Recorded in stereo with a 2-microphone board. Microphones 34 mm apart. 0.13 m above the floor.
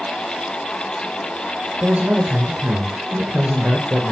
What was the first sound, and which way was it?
A man speaking, 55° right (ahead or behind).